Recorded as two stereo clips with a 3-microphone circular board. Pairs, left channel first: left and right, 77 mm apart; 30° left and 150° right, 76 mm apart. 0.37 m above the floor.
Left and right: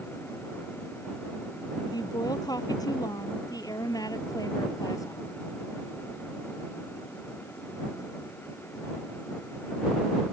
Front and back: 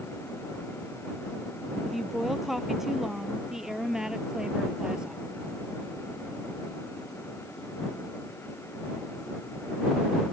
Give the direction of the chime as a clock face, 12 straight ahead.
I don't hear a chime.